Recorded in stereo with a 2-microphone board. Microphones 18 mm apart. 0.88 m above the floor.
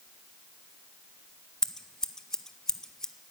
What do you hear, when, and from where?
1.6 s scissors: 35° left (ahead or behind), 0.5 m